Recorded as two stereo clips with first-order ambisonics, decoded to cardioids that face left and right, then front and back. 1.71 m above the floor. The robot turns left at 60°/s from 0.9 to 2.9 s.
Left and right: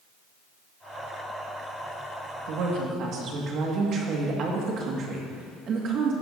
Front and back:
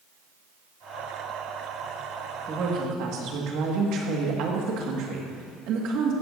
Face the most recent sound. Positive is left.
turn(degrees=-145)